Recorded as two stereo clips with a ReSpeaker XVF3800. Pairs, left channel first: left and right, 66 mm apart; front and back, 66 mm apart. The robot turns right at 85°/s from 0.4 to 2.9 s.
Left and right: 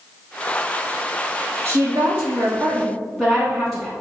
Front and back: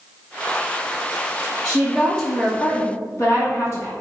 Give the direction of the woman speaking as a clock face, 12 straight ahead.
3 o'clock.